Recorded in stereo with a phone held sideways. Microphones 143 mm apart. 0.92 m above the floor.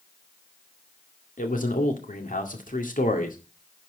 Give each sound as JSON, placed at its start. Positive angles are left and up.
{"t": 1.4, "sound": "a man speaking", "side_deg": 75, "distance_m": 2.0}